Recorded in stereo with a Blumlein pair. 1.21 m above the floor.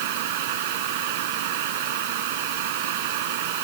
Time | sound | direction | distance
0.0 | a fan | 50° right | ?